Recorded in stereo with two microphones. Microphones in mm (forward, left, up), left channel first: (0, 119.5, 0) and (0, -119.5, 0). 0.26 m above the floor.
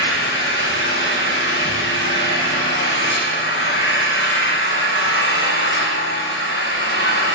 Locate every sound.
0.0 s an engine running: 55° left (ahead or behind), 5 m